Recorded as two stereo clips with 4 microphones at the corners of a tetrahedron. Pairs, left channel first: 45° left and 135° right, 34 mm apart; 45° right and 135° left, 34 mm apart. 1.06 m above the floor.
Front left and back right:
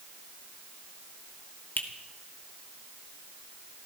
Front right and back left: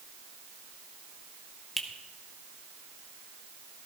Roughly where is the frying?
I don't hear frying.